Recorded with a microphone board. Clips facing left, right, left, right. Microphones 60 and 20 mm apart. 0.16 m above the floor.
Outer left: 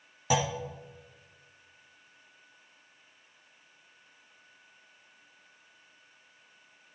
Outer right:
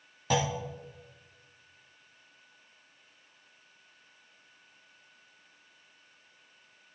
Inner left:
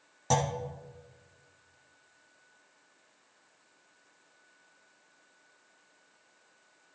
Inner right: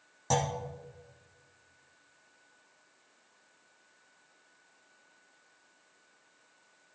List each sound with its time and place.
0.3 s a clunk: 5° left (ahead or behind), 1.6 m